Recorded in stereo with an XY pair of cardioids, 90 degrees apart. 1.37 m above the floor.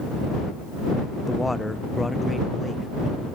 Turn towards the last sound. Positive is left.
turn(degrees=15)